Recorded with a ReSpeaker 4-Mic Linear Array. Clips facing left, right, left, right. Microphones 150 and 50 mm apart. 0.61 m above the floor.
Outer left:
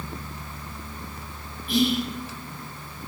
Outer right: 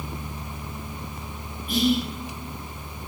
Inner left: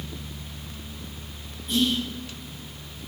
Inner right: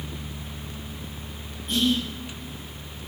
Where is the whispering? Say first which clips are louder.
Even, inner right 1 dB; 50° right (ahead or behind), 4.5 m.